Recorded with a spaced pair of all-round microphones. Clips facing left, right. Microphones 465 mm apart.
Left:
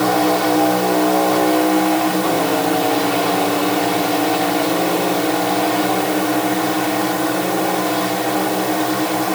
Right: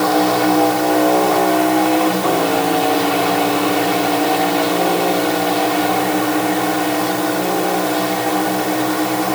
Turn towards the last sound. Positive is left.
No sound to turn to.